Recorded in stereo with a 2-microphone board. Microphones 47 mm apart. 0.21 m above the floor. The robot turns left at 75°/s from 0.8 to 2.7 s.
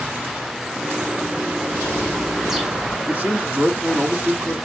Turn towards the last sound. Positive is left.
turn(degrees=-35)  # may be behind; listen again after turning